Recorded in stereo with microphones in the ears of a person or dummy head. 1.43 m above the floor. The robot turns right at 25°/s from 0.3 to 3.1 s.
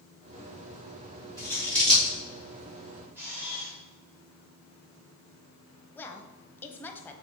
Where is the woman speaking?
15° left (ahead or behind), 0.8 m.